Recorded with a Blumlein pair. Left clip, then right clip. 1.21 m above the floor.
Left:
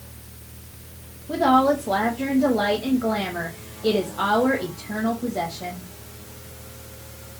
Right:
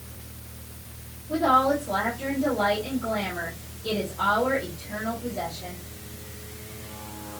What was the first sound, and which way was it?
A woman speaking, 55° left.